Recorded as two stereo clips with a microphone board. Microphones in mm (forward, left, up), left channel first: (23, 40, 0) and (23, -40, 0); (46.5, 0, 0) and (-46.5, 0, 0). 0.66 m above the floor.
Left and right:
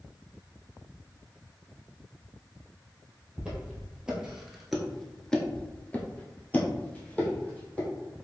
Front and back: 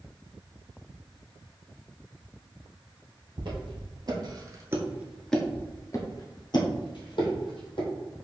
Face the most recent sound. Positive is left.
turn(degrees=20)